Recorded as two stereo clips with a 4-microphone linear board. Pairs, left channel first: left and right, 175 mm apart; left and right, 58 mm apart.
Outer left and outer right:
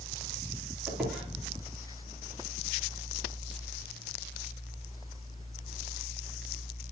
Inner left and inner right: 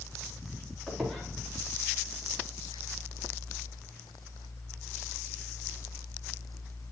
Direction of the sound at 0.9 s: 5° right (ahead or behind).